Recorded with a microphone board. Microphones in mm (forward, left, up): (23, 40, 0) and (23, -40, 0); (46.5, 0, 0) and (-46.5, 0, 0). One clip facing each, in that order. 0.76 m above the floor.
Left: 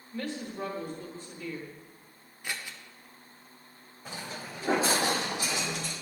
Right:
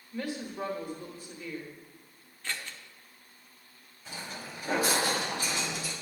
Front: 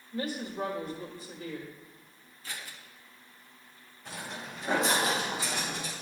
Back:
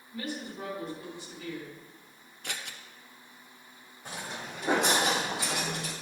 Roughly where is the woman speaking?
Ahead.